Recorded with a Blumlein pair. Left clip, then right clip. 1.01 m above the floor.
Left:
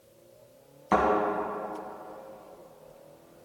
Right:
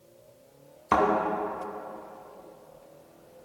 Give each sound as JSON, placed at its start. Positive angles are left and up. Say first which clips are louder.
{"t": 0.9, "sound": "a thud", "louder": "right 1 dB", "azimuth_deg": -10, "distance_m": 2.0}